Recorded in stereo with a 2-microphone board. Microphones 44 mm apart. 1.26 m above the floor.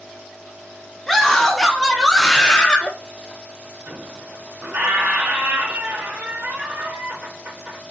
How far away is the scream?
About 3 m.